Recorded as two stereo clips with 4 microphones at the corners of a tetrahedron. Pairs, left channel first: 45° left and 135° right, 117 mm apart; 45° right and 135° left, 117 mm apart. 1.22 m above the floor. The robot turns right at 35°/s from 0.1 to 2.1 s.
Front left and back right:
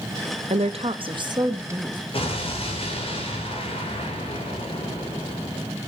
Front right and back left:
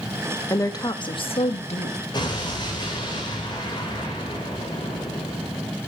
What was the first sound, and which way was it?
A woman speaking, 110° right.